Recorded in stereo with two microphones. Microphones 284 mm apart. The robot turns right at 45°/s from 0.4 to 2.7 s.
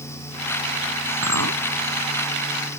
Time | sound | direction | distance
1.2 | a clink | 80° right | ?